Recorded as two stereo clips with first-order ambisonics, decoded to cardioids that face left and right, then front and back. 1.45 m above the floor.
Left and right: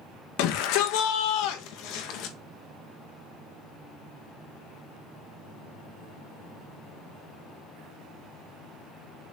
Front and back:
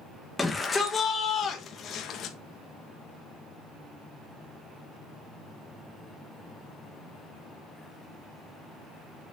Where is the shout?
80° left, 1.9 m; by 2.4 s 55° left, 2 m.